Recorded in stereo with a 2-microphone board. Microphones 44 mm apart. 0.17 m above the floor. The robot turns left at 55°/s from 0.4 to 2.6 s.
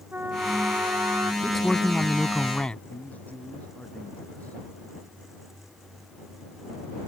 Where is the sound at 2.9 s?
35° left (ahead or behind).